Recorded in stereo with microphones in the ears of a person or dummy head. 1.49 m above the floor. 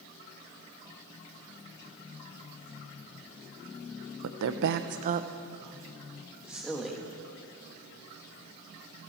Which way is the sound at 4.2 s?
75° right (ahead or behind).